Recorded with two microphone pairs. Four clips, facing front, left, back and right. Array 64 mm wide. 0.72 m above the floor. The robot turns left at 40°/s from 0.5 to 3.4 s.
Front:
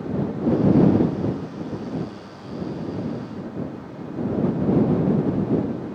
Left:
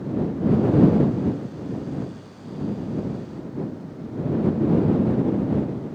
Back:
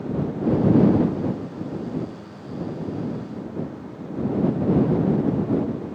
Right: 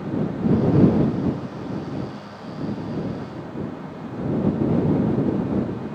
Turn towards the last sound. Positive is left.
No sound to turn to.